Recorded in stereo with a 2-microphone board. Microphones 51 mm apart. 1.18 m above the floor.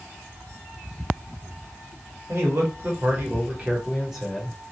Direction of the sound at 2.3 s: 65° right (ahead or behind).